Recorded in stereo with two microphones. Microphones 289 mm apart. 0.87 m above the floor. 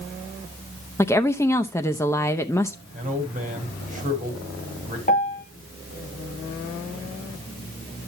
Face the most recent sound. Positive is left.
turn(degrees=30)  # may be behind; listen again after turning